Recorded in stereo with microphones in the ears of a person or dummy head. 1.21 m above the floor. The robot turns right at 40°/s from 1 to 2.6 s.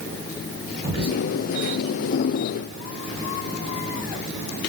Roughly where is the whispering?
Right.